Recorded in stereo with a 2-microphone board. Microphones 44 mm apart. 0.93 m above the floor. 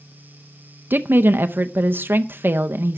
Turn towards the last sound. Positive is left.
turn(degrees=-50)  # may be behind; listen again after turning